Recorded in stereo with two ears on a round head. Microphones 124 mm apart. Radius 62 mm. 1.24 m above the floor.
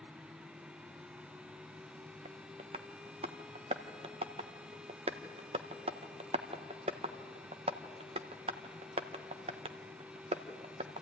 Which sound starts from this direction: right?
Tapping, at 2.2 s.